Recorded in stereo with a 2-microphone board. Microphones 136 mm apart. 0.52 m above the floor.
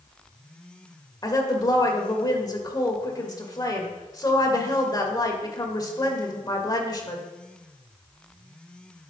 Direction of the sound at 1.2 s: 30° left (ahead or behind).